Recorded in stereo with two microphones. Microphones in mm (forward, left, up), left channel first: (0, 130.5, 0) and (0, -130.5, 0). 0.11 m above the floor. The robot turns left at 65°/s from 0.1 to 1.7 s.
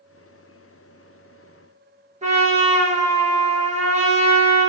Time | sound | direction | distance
2.2 | a trumpet | 25° right (ahead or behind) | 0.7 m